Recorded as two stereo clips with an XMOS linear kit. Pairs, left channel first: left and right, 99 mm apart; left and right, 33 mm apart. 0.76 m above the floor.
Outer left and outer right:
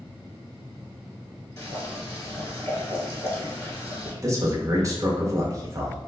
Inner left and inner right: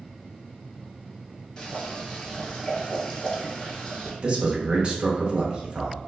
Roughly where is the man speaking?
Right.